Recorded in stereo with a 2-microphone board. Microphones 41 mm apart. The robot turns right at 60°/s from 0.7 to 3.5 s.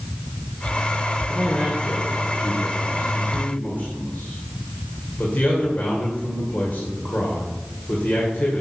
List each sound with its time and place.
1.3 s a man speaking: centre (ahead or behind), 2 m; by 8.6 s 45° left (ahead or behind), 2 m